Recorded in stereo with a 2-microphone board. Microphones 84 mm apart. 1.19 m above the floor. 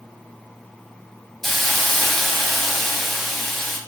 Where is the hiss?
Centre (ahead or behind), 0.8 m.